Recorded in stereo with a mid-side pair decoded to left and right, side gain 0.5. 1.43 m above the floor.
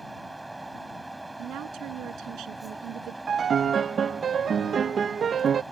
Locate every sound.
0.0 s a fan: 15° right
1.4 s a woman speaking: 70° right
3.3 s a piano: 45° right